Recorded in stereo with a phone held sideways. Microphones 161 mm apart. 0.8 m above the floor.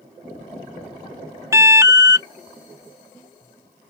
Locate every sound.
1.5 s an alarm: 20° right (ahead or behind)